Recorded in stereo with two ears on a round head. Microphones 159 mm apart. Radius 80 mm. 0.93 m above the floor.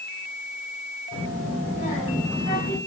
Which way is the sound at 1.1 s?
55° left (ahead or behind).